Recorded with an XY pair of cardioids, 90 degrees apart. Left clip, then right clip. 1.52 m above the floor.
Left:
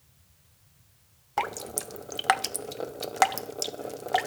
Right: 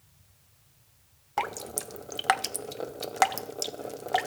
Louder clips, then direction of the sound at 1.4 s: Left 1 dB; 10° left.